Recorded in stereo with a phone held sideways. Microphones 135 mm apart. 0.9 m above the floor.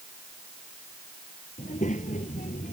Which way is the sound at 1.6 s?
65° left (ahead or behind).